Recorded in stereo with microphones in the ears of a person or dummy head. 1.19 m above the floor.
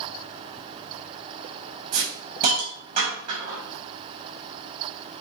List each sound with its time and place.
1.9 s a hiss: 50° right (ahead or behind), 4.5 m